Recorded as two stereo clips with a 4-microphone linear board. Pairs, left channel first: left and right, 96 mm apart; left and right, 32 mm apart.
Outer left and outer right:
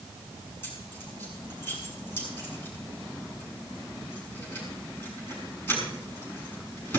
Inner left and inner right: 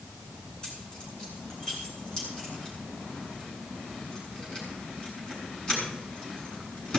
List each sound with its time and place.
0.6 s keys jangling: 25° left (ahead or behind), 7.5 m